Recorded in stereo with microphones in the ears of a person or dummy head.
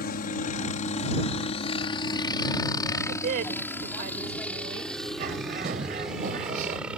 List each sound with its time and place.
0.0 s a helicopter: 55° left (ahead or behind); by 7.0 s 5° right (ahead or behind)
3.1 s a woman speaking: 50° right (ahead or behind)
5.2 s a bird: 45° right (ahead or behind)